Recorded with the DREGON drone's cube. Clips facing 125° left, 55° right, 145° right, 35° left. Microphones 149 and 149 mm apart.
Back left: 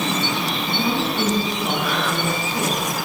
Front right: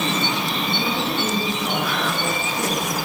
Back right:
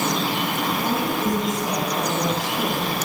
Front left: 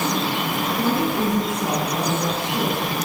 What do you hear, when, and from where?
0.8 s a woman speaking: 70° left, 9.5 m